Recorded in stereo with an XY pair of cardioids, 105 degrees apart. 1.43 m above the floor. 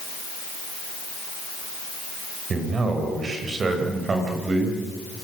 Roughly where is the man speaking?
Ahead right.